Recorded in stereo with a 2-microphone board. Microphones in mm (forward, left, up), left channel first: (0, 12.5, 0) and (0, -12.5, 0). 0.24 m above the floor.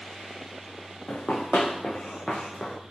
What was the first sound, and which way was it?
Running footsteps, 80° left.